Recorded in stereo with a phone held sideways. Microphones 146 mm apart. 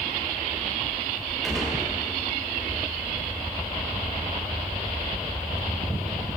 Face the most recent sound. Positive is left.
turn(degrees=0)  # may be behind; listen again after turning